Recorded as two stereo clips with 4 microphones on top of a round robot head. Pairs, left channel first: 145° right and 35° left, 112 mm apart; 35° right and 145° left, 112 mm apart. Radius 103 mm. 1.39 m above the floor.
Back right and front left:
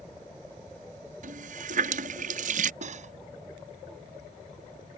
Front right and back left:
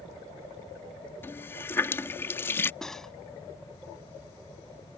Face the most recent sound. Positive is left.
turn(degrees=50)